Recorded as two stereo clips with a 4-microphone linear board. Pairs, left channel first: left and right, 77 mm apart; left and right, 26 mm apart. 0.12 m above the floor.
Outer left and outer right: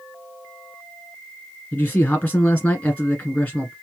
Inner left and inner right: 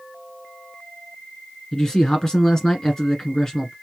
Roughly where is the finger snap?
I don't hear a finger snap.